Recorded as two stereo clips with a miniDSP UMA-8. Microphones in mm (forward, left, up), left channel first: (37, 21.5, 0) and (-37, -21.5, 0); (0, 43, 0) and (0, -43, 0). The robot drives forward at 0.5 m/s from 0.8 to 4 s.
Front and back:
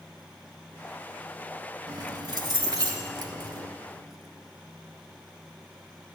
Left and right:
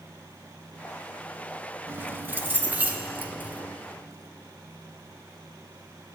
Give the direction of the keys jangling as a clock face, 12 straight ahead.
5 o'clock.